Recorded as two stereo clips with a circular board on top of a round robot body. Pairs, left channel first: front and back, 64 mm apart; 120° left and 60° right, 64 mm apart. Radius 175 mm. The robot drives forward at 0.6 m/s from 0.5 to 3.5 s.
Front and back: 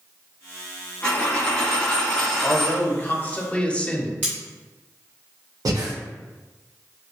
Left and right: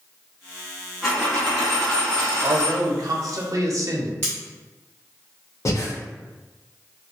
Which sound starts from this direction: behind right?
Cutlery clinking, at 4.2 s.